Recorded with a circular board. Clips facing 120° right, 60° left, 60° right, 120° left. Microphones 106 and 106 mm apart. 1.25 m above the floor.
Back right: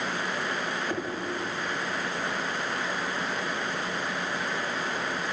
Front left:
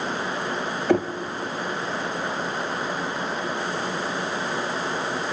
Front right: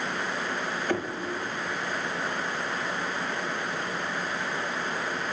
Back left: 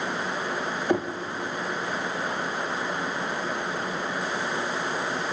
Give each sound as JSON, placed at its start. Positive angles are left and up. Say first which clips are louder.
{"t": 0.9, "sound": "knocking", "louder": "front left 16 dB, back left 5 dB", "azimuth_deg": 50, "distance_m": 0.8}